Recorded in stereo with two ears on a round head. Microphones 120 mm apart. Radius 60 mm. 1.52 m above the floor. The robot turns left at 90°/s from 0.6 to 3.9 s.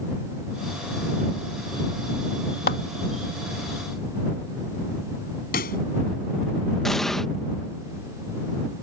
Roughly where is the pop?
Left.